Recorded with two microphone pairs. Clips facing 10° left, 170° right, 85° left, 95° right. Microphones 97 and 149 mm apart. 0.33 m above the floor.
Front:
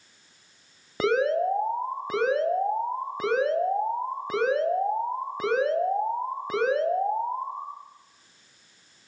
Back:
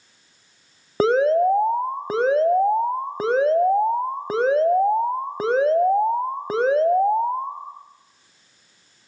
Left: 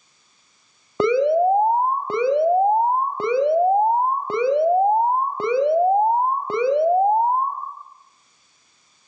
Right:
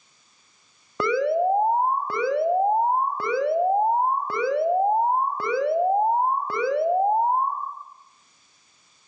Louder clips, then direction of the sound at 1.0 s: Back 6 dB, left 5 dB; 145° left.